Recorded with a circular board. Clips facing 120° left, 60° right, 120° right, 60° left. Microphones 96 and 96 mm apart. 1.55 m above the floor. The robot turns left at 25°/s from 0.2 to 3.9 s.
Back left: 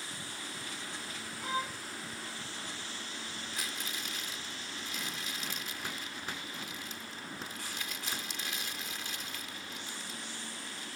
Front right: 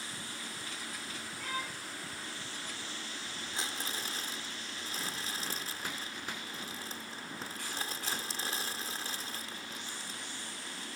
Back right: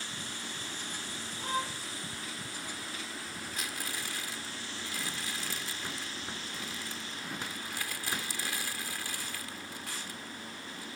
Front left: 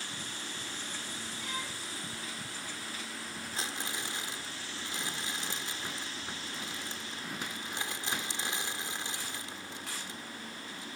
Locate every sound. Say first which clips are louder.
1.4 s a violin: back left 5 dB, back right 8 dB; 170° right; by 1.8 s straight behind
3.5 s crumpling: front right 4 dB, front left 2 dB; straight ahead; by 10.9 s 5° right